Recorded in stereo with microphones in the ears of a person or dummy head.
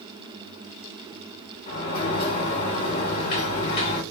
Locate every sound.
1.7 s a sliding door: 55° left (ahead or behind), 1.5 m